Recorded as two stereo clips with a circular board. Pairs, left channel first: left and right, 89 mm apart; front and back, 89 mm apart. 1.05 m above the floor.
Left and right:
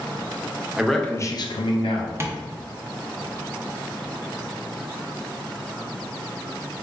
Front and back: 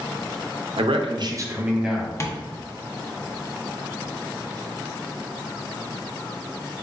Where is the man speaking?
170° right, 0.6 m; by 2.1 s 90° left, 1.0 m.